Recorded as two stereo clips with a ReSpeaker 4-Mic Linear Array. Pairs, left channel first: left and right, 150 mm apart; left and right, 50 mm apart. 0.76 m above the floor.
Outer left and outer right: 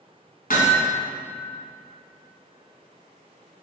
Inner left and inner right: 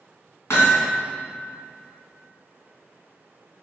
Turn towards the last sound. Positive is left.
turn(degrees=70)  # may be behind; listen again after turning